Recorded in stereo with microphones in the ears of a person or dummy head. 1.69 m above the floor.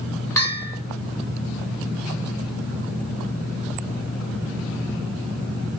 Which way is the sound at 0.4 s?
20° left (ahead or behind).